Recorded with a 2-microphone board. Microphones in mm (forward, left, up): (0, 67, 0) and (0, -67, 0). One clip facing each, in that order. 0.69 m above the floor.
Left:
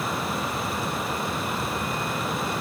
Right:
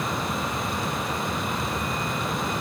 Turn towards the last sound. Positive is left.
No sound to turn to.